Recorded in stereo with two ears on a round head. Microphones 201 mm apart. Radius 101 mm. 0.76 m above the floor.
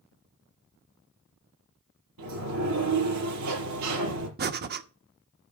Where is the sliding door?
85° right, 5.5 m.